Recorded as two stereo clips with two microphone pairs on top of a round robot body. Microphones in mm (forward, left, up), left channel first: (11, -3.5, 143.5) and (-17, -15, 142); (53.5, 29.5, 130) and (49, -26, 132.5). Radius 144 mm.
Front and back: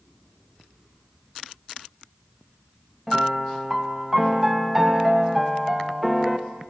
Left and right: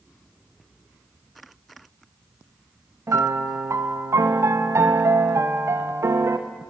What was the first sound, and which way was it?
A piano, 75° right.